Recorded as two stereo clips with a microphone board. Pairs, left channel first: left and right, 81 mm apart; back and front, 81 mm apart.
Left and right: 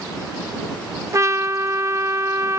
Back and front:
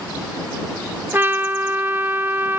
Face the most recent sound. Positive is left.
turn(degrees=-55)